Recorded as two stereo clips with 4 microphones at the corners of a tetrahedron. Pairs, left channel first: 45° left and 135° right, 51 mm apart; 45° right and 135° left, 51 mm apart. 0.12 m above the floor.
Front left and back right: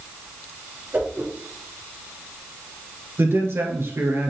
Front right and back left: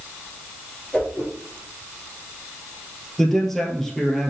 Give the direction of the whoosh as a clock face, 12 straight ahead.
4 o'clock.